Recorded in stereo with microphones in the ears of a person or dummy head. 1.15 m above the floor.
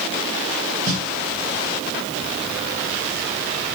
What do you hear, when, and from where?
0.9 s a snare drum: 75° right (ahead or behind), 2 m